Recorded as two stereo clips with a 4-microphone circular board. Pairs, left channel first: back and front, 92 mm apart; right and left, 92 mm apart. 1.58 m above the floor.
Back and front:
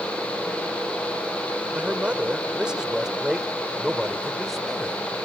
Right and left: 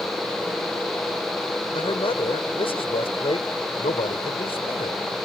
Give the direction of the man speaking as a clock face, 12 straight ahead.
3 o'clock.